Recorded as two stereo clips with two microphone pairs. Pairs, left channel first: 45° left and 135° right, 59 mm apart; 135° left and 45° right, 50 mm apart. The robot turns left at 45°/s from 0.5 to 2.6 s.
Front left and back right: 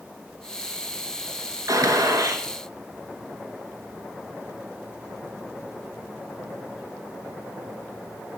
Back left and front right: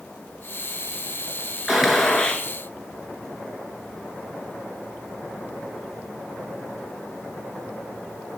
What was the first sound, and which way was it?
A gunshot, 125° right.